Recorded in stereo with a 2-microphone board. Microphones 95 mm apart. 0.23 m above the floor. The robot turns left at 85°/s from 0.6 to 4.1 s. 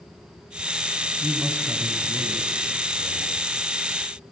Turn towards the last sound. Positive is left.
turn(degrees=-45)